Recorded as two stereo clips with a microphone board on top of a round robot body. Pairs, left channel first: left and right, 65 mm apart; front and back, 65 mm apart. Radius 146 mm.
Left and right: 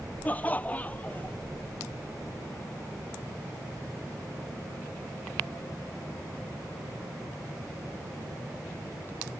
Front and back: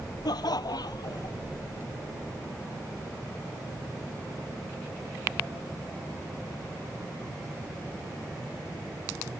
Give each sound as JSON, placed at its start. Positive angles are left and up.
{"t": 0.2, "sound": "laughter", "azimuth_deg": 25}